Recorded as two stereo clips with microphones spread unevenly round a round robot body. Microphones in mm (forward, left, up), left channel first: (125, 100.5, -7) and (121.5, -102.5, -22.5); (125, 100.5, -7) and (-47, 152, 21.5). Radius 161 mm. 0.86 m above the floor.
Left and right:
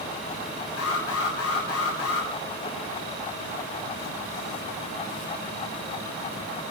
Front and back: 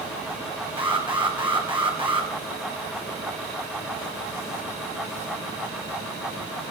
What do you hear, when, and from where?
0.8 s an alarm: 100° left, 7.5 m